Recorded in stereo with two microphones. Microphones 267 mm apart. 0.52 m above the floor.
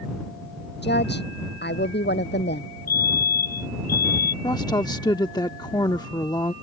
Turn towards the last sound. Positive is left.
turn(degrees=15)  # may be behind; listen again after turning